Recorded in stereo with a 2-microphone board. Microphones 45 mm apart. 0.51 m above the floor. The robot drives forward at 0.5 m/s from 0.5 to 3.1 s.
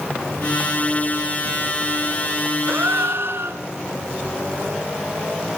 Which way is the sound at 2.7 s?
75° right (ahead or behind).